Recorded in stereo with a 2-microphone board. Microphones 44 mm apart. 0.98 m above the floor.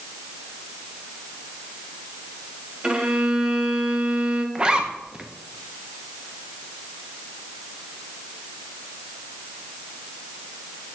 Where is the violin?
25° right (ahead or behind), 0.9 m.